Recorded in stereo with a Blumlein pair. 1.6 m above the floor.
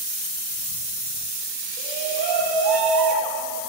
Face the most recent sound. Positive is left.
turn(degrees=-25)